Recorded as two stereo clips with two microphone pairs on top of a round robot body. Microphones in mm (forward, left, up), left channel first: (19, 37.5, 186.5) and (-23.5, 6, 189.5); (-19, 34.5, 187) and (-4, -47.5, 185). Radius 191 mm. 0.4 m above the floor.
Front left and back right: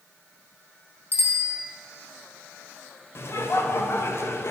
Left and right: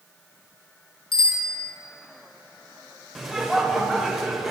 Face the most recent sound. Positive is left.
turn(degrees=5)